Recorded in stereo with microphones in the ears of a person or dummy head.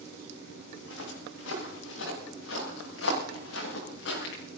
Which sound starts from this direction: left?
Footsteps, at 0.8 s.